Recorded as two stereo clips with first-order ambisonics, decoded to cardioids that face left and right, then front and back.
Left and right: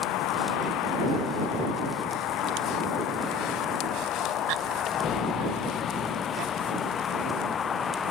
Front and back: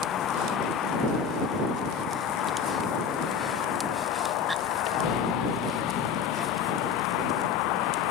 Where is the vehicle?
55° left; by 8.1 s 20° left.